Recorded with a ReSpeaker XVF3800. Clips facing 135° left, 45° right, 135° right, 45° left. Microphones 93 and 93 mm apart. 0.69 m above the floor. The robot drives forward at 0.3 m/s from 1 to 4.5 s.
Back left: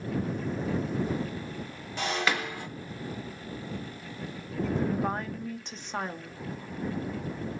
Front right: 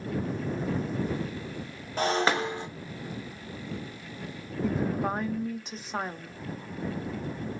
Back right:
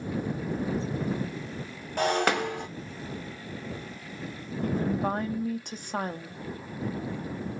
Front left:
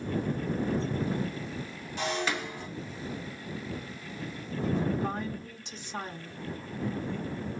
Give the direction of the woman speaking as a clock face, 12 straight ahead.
4 o'clock.